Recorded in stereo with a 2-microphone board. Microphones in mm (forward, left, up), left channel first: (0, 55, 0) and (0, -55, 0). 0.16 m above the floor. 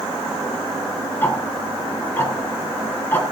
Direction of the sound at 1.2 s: 20° left (ahead or behind).